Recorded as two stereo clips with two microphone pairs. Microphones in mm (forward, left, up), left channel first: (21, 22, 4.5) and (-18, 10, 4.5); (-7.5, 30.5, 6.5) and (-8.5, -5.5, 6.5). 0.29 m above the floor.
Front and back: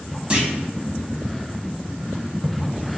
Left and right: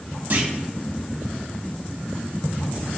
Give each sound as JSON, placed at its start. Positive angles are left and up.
{"t": 0.3, "sound": "a clunk", "azimuth_deg": -100, "distance_m": 1.1}